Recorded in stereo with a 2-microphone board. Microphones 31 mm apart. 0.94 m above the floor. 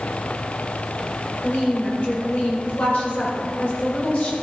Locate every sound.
1.4 s a woman speaking: 60° left (ahead or behind), 4.5 m